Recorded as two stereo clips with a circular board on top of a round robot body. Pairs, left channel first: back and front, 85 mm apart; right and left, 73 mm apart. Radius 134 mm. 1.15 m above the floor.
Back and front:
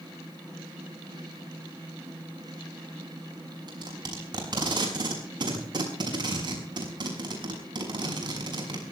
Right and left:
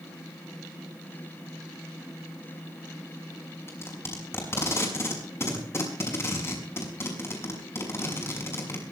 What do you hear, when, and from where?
3.7 s tape being pulled: 35° right, 6 m